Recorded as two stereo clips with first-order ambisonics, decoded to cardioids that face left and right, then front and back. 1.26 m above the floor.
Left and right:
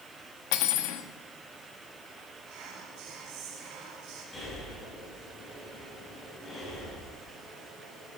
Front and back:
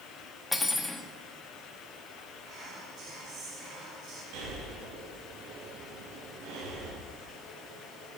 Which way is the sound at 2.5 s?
130° right.